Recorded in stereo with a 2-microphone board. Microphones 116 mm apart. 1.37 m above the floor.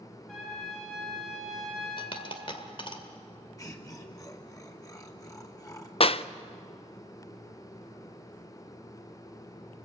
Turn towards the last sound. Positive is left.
turn(degrees=55)  # may be behind; listen again after turning